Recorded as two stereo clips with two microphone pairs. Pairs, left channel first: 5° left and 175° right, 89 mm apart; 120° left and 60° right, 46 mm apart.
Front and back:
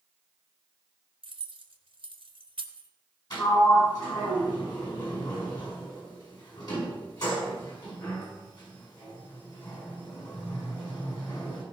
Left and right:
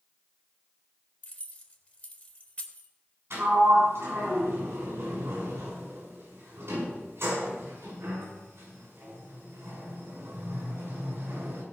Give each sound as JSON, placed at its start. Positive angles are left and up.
{"t": 1.2, "sound": "keys jangling", "azimuth_deg": 175, "distance_m": 1.5}
{"t": 3.3, "sound": "a sliding door", "azimuth_deg": -35, "distance_m": 5.5}